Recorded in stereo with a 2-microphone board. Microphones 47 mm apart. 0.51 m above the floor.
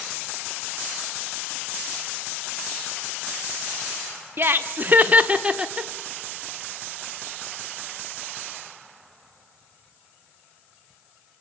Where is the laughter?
45° right (ahead or behind), 1.0 m; by 5.9 s 10° right (ahead or behind), 0.9 m.